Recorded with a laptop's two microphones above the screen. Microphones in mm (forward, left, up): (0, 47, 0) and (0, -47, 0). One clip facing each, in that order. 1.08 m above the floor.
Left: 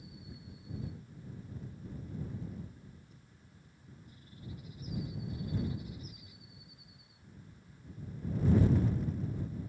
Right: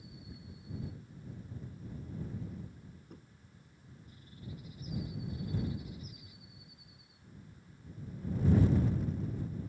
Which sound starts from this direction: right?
Knocking, at 3.1 s.